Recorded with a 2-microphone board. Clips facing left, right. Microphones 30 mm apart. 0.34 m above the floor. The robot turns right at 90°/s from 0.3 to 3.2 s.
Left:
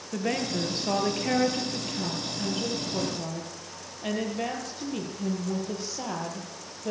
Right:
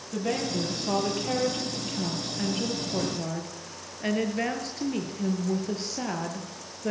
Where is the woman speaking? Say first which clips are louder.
Even; 25° left, 5.5 m; by 6.9 s 70° right, 5.5 m.